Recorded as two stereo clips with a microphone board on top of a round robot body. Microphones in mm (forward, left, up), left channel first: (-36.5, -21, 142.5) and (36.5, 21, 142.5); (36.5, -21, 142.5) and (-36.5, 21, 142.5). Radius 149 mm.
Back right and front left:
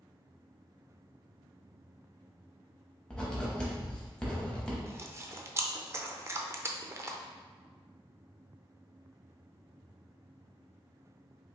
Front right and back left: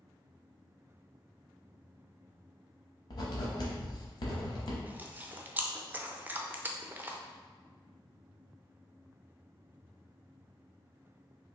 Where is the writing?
70° right, 0.7 m.